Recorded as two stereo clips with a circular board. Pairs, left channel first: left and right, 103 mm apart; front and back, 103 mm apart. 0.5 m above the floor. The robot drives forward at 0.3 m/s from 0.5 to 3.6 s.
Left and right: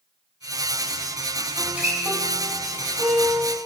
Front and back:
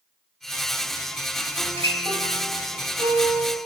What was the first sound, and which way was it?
A guitar, 170° right.